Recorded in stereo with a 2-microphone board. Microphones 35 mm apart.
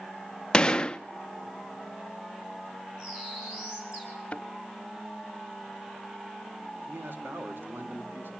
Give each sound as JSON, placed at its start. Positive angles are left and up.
{"t": 0.5, "sound": "a gunshot", "side_deg": 20, "distance_m": 0.5}
{"t": 3.0, "sound": "a bird", "side_deg": -25, "distance_m": 7.5}
{"t": 4.3, "sound": "a thud", "side_deg": 35, "distance_m": 1.1}
{"t": 6.9, "sound": "a man speaking", "side_deg": -70, "distance_m": 2.5}